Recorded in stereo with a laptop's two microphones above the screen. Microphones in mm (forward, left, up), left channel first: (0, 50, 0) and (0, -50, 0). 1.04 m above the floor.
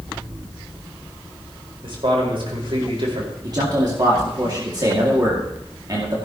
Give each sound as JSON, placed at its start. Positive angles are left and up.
{"t": 1.8, "sound": "a man speaking", "side_deg": -60, "distance_m": 4.5}
{"t": 3.4, "sound": "a man speaking", "side_deg": -40, "distance_m": 2.0}